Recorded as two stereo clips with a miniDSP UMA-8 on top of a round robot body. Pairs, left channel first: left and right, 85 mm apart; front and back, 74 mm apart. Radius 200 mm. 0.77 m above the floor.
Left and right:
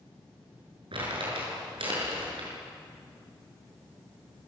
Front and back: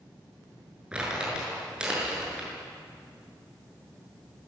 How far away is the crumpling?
About 7 m.